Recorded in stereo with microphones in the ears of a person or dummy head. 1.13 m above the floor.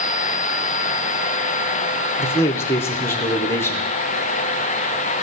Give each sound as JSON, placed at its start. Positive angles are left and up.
{"t": 2.2, "sound": "a man speaking", "side_deg": 20, "distance_m": 0.5}